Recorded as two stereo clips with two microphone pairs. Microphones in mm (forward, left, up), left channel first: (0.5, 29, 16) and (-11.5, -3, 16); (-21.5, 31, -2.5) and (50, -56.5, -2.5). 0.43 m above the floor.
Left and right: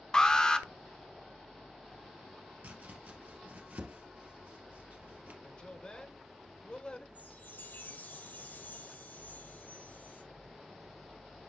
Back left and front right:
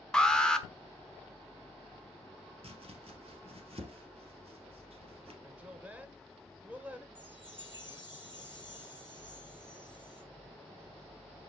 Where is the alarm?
50° left, 1.1 m.